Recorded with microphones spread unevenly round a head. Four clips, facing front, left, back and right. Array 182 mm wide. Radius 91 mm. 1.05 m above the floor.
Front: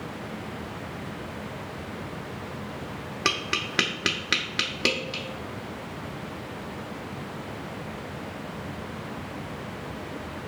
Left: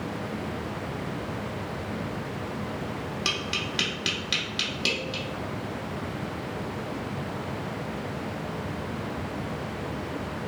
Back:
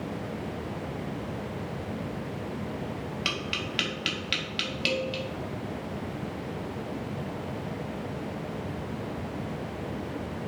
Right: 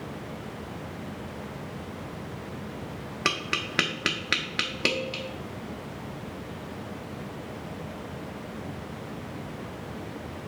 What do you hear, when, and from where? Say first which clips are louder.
3.2 s tapping: right 1 dB, front 4 dB; 35° right, 0.8 m